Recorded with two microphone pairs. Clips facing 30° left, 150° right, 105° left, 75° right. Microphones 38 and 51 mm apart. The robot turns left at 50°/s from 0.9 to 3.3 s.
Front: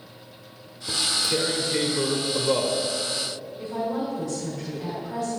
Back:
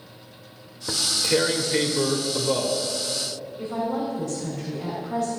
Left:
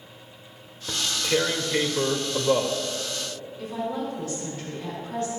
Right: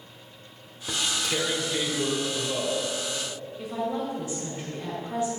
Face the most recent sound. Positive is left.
turn(degrees=-145)